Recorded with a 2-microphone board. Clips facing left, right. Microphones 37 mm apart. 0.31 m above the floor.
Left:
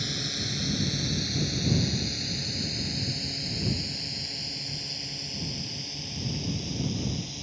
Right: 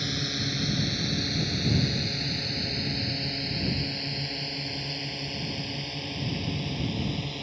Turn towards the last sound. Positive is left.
turn(degrees=-30)  # may be behind; listen again after turning